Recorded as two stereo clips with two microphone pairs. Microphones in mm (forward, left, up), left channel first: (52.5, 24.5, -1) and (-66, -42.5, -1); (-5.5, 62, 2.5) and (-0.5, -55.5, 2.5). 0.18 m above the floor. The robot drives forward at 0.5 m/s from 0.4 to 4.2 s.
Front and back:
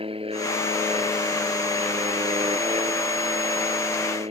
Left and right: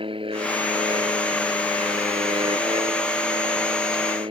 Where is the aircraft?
115° right; by 4.3 s 120° right.